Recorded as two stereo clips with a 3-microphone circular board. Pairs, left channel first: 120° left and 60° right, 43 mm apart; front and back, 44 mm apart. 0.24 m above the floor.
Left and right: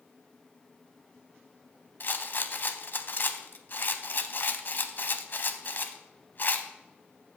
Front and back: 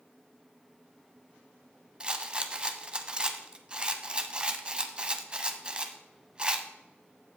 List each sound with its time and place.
2.0 s a rattle: 125° left, 0.8 m